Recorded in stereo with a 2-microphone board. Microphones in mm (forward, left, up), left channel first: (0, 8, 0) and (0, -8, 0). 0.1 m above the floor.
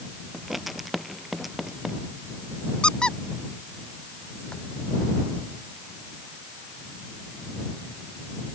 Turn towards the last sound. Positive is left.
turn(degrees=65)  # may be behind; listen again after turning